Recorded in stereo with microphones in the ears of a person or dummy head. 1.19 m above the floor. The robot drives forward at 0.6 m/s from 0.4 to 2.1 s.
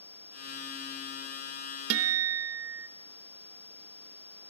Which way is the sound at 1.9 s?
70° right (ahead or behind).